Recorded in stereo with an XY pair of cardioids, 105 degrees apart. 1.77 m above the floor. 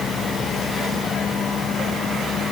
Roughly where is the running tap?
No running tap in this recording.